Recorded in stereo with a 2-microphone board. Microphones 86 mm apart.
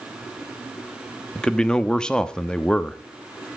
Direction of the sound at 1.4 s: 10° left (ahead or behind).